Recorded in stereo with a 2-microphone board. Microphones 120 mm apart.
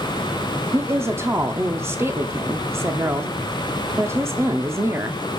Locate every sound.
0.7 s a woman speaking: 20° right (ahead or behind), 0.7 m